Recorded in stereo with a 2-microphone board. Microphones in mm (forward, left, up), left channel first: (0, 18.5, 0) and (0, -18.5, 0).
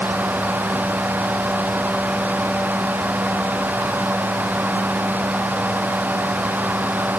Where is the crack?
I don't hear a crack.